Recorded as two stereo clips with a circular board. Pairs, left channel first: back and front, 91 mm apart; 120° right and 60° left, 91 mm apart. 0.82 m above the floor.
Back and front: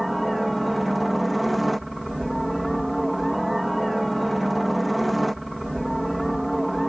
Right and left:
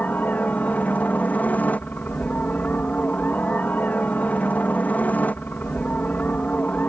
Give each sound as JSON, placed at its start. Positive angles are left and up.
{"t": 0.0, "sound": "a helicopter", "azimuth_deg": -90}